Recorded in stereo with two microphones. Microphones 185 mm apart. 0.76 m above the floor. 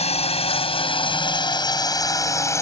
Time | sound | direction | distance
0.0 | a drone | 35° left (ahead or behind) | ?